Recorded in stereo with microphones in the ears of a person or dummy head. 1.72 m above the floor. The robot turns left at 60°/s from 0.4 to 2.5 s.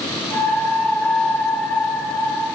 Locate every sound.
Only background noise.